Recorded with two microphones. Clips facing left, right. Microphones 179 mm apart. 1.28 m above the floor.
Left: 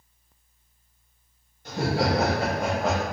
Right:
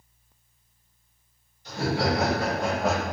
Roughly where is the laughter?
Left.